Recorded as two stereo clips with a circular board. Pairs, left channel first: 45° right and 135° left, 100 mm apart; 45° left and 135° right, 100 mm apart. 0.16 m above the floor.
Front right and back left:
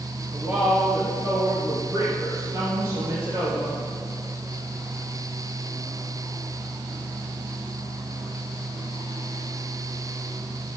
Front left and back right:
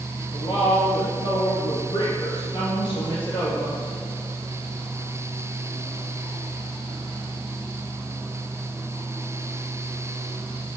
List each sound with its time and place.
0.3 s a woman speaking: 75° left, 2.5 m; by 3.7 s 85° left, 5 m